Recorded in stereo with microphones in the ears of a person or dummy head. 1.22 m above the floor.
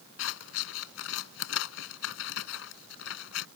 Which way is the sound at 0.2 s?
80° left.